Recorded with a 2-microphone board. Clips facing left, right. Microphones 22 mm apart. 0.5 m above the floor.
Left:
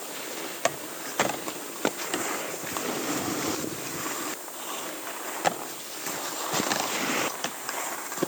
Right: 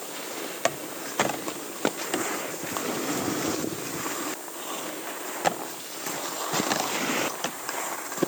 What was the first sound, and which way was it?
Only background noise.